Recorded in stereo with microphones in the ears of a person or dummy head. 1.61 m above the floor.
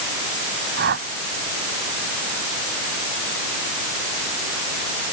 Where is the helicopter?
No helicopter in this recording.